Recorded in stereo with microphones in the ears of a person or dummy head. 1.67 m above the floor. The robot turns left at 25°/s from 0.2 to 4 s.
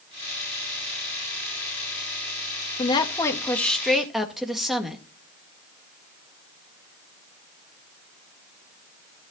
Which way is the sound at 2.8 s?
25° left.